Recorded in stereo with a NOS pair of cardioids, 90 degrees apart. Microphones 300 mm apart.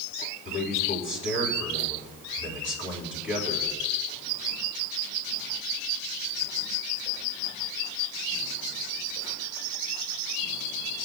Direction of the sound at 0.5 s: 40° left.